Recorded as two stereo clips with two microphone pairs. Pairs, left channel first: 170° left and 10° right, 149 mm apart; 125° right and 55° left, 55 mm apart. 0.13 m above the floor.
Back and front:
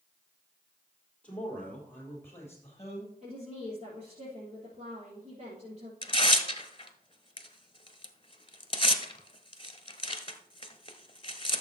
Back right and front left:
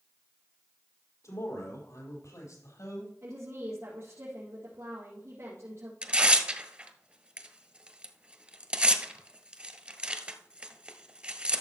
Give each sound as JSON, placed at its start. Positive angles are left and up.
{"t": 1.2, "sound": "a man speaking", "azimuth_deg": -110, "distance_m": 4.0}
{"t": 3.2, "sound": "a woman speaking", "azimuth_deg": 25, "distance_m": 4.0}
{"t": 6.0, "sound": "tearing paper", "azimuth_deg": 120, "distance_m": 1.1}